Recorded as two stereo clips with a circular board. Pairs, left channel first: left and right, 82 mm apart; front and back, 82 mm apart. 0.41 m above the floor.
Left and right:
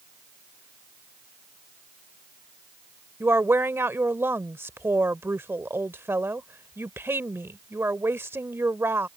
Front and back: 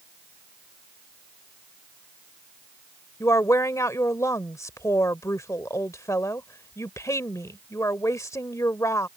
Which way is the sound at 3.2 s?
40° right.